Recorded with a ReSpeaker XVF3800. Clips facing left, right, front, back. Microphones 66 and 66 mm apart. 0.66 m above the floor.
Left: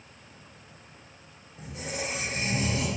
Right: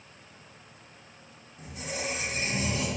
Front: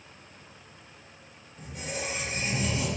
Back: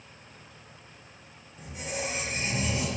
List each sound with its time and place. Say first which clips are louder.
1.6 s a squeak: left 1 dB, back 1 dB; 100° left, 1.6 m